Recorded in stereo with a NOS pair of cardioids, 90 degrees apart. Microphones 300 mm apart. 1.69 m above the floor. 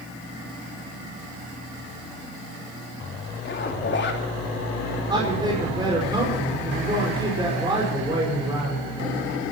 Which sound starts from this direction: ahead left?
A zipper, at 3.5 s.